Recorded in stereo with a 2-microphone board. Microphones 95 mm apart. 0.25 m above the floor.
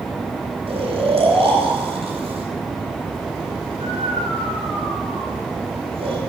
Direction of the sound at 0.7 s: 70° right (ahead or behind).